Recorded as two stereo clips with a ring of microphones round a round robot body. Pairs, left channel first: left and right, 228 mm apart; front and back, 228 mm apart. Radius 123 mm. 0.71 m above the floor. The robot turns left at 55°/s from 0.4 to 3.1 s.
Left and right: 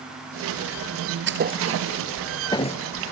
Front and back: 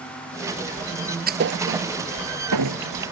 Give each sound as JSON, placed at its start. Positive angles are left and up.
{"t": 1.3, "sound": "a thud", "azimuth_deg": -130}